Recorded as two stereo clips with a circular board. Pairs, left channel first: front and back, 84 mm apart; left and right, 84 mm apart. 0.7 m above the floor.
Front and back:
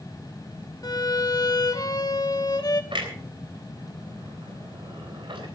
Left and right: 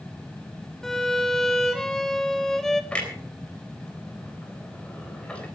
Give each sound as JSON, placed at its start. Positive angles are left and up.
{"t": 0.8, "sound": "a violin", "azimuth_deg": 5, "distance_m": 1.4}
{"t": 2.9, "sound": "a clunk", "azimuth_deg": 165, "distance_m": 3.5}